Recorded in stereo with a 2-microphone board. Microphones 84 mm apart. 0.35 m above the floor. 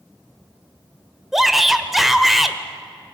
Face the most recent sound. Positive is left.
turn(degrees=-5)  # may be behind; listen again after turning